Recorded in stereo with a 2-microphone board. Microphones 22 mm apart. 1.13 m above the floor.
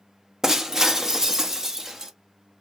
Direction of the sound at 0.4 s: 20° right (ahead or behind).